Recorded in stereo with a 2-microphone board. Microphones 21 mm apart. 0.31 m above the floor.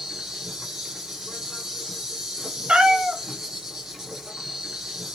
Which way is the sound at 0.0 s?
20° right (ahead or behind).